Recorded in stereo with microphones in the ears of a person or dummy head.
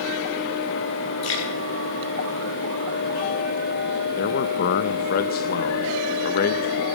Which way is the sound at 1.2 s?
75° left (ahead or behind).